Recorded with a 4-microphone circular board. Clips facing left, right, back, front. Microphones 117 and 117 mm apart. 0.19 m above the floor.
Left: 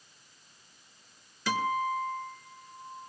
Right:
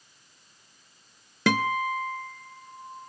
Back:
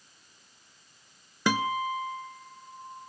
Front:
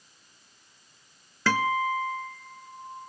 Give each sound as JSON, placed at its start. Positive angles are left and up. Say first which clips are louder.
{"t": 1.5, "sound": "a guitar", "louder": "right 4 dB, front 2 dB", "azimuth_deg": -105, "distance_m": 1.0}